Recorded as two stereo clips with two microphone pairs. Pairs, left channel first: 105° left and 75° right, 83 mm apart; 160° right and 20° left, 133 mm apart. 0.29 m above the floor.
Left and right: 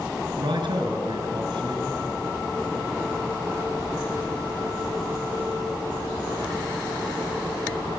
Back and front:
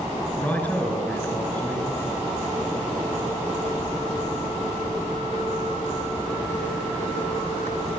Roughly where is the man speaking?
Right.